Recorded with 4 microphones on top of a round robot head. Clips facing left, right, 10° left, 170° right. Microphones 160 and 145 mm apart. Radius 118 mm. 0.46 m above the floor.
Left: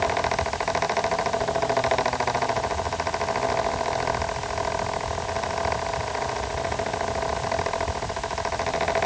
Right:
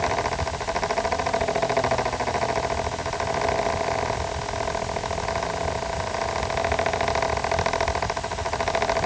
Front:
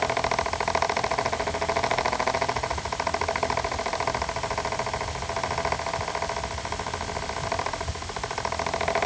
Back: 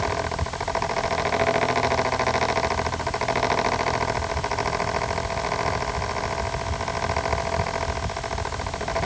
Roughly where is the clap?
No clap in this recording.